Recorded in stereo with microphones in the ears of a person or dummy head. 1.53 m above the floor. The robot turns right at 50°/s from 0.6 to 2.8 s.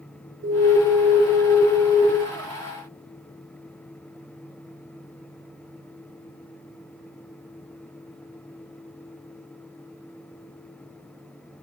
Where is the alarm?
65° right, 0.9 m; by 2.0 s 10° left, 0.9 m.